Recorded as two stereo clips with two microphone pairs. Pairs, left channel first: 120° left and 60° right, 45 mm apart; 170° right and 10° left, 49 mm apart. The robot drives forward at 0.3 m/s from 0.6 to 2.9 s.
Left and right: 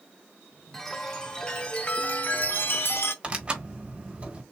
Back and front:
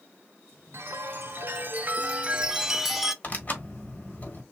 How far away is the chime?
About 0.8 m.